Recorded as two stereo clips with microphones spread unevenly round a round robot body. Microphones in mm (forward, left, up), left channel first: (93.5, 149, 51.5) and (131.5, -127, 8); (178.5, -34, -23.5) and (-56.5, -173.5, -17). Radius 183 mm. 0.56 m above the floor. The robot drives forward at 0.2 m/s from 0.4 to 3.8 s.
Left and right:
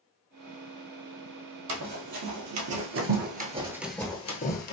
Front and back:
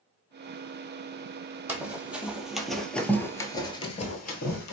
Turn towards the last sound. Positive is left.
turn(degrees=75)